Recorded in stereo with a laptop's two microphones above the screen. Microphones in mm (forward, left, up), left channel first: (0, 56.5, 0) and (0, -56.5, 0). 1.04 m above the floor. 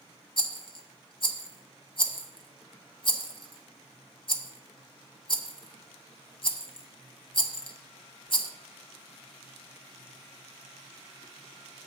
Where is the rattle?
45° left (ahead or behind), 1.0 m.